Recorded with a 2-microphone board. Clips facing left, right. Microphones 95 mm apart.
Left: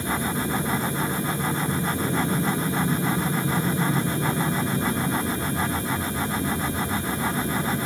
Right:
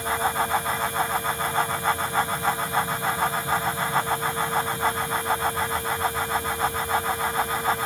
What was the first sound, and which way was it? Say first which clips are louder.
An aircraft: right 2 dB; 60° left (ahead or behind).